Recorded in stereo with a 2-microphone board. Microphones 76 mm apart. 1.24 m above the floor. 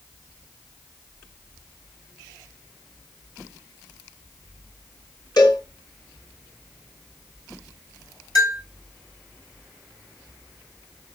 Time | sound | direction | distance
5.4 | a cowbell | 60° left (ahead or behind) | 7 m
8.3 | a bell | 55° left (ahead or behind) | 8 m